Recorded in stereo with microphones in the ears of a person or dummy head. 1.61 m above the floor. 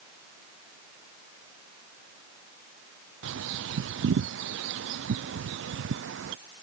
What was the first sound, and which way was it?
A bird, 70° right (ahead or behind).